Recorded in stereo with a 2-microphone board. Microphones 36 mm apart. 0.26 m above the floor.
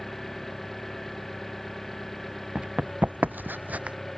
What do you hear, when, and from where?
0.0 s an engine running: 5° left (ahead or behind)
2.5 s running footsteps: 30° right (ahead or behind); by 4.0 s 35° right (ahead or behind)